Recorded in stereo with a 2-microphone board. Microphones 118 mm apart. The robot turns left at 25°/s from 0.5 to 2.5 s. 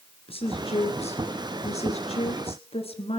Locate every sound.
0.3 s a woman speaking: 115° left, 2.5 m; by 3.2 s 65° left, 2.5 m